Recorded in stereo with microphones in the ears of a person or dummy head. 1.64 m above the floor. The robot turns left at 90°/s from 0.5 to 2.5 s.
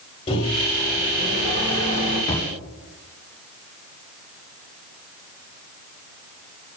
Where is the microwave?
35° left, 6.5 m; by 2.2 s 115° right, 6.5 m.